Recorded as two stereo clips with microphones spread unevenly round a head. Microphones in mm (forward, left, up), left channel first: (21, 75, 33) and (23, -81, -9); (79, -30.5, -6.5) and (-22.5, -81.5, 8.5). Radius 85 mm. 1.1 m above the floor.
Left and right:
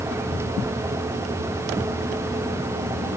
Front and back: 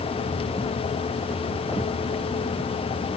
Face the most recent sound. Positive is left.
No sound to turn to.